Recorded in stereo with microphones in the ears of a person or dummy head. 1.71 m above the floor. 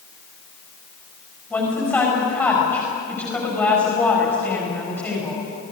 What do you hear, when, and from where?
1.5 s a woman speaking: 10° left (ahead or behind), 7.5 m